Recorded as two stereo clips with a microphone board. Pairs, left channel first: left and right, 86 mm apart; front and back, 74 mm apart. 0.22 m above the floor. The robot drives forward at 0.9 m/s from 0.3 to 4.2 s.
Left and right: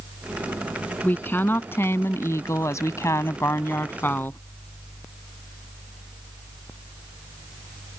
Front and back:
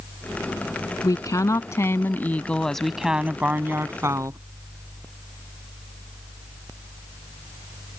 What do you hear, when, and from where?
1.0 s a woman speaking: 25° left; by 4.4 s 150° left